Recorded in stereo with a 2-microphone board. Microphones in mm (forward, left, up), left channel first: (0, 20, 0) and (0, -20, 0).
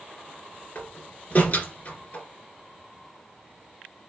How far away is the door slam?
About 1.8 m.